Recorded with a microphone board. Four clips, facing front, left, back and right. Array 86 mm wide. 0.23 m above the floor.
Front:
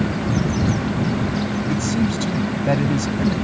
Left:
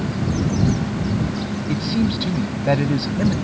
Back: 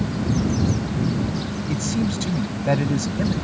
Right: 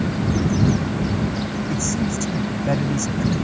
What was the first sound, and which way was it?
A man speaking, 90° left.